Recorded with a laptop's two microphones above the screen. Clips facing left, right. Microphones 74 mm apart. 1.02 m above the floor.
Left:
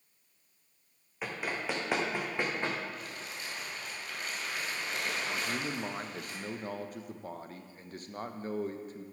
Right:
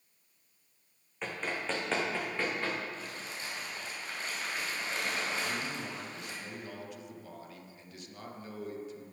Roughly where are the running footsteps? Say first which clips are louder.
Even; centre.